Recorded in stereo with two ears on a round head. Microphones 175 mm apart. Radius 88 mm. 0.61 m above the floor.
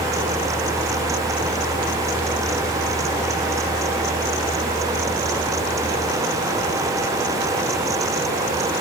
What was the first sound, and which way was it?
Only background noise.